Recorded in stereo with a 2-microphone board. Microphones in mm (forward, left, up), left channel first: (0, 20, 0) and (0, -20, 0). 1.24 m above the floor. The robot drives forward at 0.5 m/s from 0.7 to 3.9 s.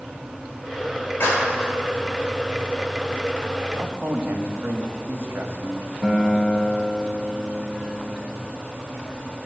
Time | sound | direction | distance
1.2 | a clap | 70° left (ahead or behind) | 5 m
3.8 | a man speaking | 80° right | 1.7 m
6.0 | a guitar | 5° left (ahead or behind) | 2 m